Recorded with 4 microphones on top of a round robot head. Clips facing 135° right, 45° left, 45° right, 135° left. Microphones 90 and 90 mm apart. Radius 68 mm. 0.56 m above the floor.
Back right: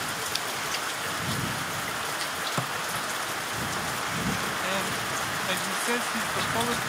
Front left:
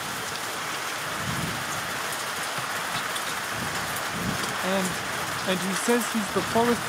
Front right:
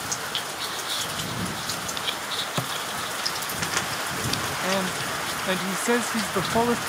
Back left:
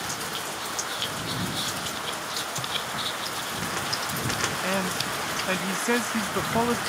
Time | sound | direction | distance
2.6 | a thud | 80° right | ?
4.6 | a man speaking | 25° left | ?